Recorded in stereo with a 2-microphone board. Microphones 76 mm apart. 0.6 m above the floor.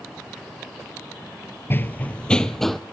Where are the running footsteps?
30° left (ahead or behind), 0.7 m; by 2.8 s centre (ahead or behind), 1.2 m.